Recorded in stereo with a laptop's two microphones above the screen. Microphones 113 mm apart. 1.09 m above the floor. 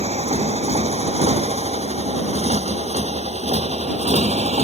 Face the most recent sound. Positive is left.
turn(degrees=-75)  # may be behind; listen again after turning